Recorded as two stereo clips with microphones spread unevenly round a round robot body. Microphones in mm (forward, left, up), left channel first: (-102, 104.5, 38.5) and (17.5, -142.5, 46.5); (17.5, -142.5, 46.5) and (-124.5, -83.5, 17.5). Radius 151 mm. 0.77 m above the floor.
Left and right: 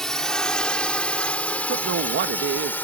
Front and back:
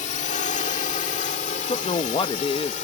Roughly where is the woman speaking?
Right.